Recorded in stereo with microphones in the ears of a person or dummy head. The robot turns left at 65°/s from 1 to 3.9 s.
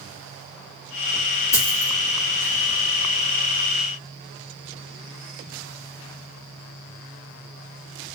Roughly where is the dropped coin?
Centre.